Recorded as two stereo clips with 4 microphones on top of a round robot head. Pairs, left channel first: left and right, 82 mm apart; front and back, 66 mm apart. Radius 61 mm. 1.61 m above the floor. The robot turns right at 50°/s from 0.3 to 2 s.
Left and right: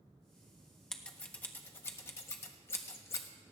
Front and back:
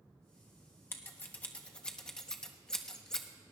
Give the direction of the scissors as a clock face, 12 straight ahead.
11 o'clock.